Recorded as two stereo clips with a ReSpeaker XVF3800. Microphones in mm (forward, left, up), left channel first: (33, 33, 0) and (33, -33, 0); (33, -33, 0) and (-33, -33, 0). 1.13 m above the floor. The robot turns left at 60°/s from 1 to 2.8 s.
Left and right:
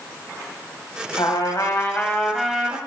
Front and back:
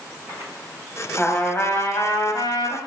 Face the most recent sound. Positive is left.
turn(degrees=-20)